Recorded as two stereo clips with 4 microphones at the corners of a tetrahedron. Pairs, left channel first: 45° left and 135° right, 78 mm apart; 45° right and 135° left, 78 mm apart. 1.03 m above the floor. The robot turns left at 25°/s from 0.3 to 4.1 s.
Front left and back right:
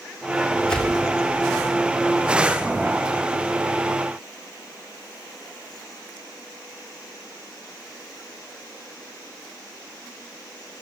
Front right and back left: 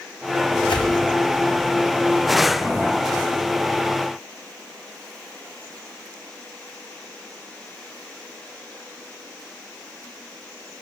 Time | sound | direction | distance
0.7 | a whoosh | 35° right | 4 m